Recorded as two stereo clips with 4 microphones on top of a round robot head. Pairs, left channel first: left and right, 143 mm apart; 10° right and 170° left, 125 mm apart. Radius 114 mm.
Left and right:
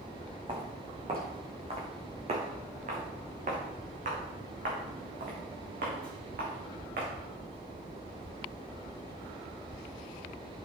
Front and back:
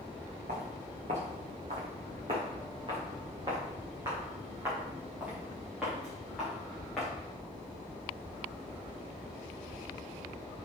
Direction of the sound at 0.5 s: 145° right.